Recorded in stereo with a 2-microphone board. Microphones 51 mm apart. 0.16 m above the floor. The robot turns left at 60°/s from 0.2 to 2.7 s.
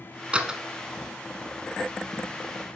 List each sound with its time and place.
0.3 s a door slam: 20° right (ahead or behind), 0.9 m; by 0.6 s 10° right (ahead or behind), 0.9 m